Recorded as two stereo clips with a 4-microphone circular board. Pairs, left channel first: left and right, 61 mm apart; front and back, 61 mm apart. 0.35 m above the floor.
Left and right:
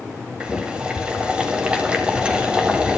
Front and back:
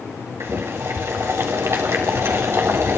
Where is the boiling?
160° right, 1.9 m.